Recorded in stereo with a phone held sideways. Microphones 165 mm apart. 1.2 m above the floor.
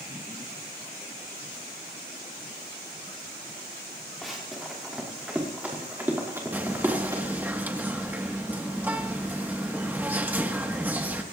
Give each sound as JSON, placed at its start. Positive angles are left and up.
{"t": 4.2, "sound": "running footsteps", "side_deg": 0, "distance_m": 5.5}
{"t": 6.5, "sound": "whispering", "side_deg": -10, "distance_m": 1.4}